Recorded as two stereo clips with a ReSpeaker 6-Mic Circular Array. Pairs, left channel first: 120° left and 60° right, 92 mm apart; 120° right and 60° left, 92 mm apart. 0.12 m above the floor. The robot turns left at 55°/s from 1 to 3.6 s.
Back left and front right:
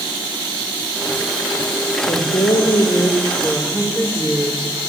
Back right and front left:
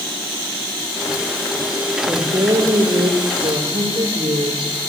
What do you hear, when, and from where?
2.1 s a woman speaking: 125° left, 4 m; by 4.7 s 40° left, 4 m